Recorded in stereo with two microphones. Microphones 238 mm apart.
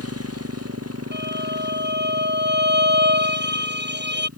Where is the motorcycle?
90° right.